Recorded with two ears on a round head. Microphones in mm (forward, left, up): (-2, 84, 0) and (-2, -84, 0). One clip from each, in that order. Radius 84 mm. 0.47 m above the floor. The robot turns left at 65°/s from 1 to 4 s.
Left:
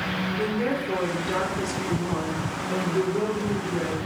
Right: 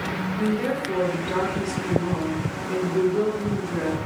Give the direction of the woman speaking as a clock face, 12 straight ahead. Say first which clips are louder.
Right 2 dB; 7 o'clock.